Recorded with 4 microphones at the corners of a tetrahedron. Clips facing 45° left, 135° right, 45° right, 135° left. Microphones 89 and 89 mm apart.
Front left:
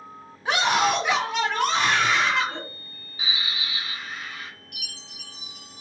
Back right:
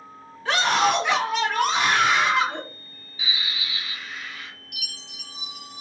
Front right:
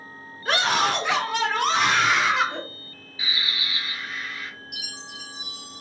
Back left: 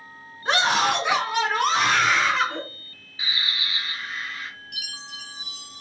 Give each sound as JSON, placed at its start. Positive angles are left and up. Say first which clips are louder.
{"t": 0.5, "sound": "a scream", "louder": "back right 1 dB, back left 1 dB", "azimuth_deg": 105, "distance_m": 1.6}
{"t": 3.2, "sound": "a bird", "louder": "front left 1 dB, even", "azimuth_deg": 80, "distance_m": 2.0}
{"t": 4.7, "sound": "a chime", "louder": "back right 1 dB, front right 1 dB", "azimuth_deg": 15, "distance_m": 2.0}